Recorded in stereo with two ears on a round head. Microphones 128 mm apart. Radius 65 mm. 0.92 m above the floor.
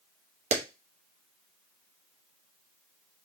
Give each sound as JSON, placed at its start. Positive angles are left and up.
{"t": 0.5, "sound": "a clap", "side_deg": -45, "distance_m": 0.8}